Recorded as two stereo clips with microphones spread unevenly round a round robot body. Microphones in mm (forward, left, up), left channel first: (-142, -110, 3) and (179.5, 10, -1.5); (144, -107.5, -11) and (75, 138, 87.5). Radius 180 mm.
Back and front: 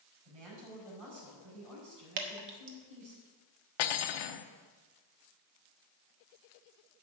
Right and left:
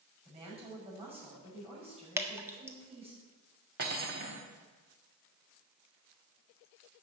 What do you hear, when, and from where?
0.2 s a woman speaking: 35° left, 6 m
2.2 s dripping: 20° left, 1.5 m
3.8 s cutlery clinking: 170° left, 0.8 m